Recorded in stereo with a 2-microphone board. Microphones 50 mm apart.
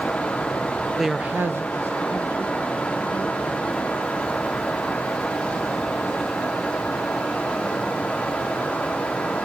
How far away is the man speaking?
About 0.6 m.